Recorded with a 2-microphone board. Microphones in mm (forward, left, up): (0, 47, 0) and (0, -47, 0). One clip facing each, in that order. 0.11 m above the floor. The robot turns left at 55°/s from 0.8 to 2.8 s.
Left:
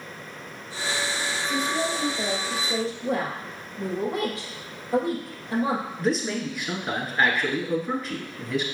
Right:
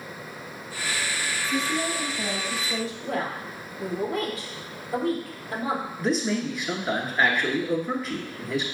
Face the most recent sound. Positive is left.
turn(degrees=0)  # may be behind; listen again after turning